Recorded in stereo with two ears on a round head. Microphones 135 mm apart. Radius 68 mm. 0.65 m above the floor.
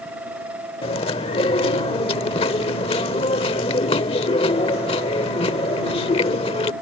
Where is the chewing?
35° left (ahead or behind).